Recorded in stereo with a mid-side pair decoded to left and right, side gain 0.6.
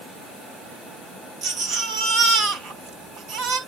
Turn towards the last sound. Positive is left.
turn(degrees=-60)